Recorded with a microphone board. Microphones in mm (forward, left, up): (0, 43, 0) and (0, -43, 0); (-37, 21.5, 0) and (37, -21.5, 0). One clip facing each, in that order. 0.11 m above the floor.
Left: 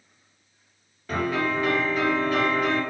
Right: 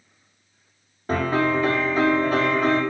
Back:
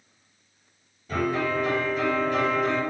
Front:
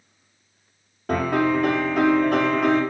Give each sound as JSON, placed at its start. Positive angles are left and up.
{"t": 1.1, "sound": "a piano", "azimuth_deg": -35, "distance_m": 7.5}